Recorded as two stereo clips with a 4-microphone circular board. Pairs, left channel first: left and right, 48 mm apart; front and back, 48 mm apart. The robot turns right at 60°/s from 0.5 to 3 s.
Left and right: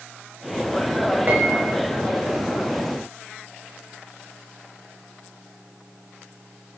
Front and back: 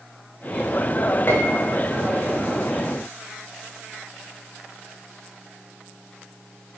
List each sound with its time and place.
1.3 s a piano: 45° right, 5.5 m; by 1.8 s 15° right, 5.5 m